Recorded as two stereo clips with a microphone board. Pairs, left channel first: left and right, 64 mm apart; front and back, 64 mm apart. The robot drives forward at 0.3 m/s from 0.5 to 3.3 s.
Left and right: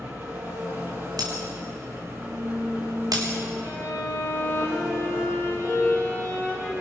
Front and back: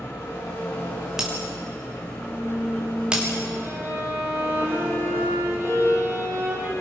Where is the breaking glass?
95° right, 5 m; by 3.3 s 105° right, 5 m.